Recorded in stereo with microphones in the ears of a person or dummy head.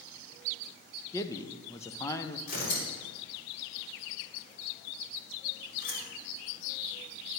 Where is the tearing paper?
60° left (ahead or behind), 4 m.